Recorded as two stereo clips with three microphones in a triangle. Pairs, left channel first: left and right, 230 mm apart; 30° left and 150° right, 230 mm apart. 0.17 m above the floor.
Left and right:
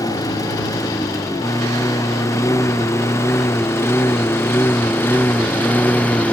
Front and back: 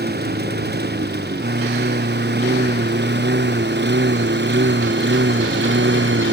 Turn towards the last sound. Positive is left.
turn(degrees=175)